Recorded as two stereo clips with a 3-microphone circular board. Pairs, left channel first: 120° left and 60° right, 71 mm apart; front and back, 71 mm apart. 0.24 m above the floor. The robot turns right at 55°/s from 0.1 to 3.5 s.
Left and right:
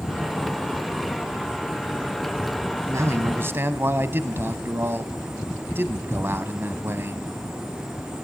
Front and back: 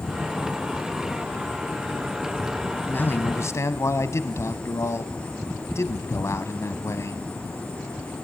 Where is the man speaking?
55° right, 1.3 m; by 7.2 s 20° right, 1.3 m.